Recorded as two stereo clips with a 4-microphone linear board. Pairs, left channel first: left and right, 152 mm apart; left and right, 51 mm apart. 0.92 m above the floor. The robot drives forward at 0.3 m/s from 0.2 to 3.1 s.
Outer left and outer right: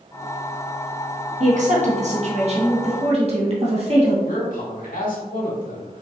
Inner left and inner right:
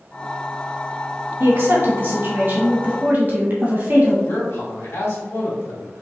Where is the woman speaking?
50° right (ahead or behind), 1.3 m; by 4.1 s 40° right (ahead or behind), 1.5 m.